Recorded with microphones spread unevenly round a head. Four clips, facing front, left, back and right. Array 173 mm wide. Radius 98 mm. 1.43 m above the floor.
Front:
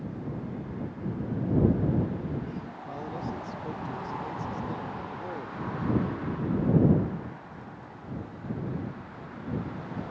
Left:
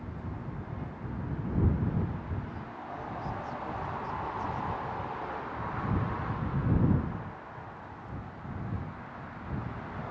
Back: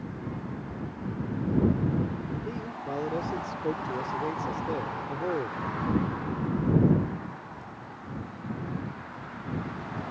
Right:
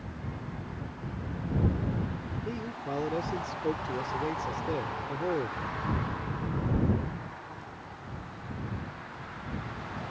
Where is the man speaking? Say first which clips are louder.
Right 5 dB, back 4 dB; 125° right.